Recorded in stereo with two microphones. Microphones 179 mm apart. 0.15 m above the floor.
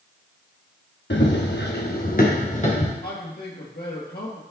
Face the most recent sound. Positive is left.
turn(degrees=65)  # may be behind; listen again after turning